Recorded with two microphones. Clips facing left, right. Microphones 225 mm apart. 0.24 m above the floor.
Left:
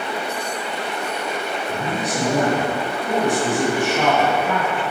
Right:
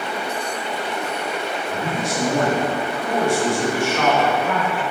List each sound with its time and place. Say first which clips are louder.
1.7 s a man speaking: even; 20° left (ahead or behind), 2.0 m